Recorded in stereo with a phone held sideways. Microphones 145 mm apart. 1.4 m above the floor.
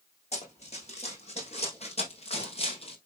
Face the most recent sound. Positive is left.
turn(degrees=45)  # may be behind; listen again after turning